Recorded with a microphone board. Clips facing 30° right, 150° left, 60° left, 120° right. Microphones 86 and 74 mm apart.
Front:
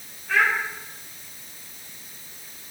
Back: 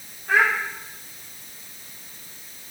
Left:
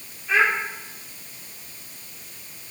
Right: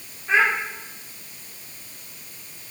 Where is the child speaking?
Straight behind, 8 m.